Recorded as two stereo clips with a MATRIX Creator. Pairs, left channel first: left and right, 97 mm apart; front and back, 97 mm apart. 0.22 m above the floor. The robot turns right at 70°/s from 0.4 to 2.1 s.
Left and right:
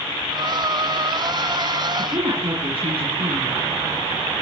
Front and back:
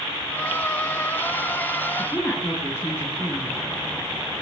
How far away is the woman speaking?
About 3.5 m.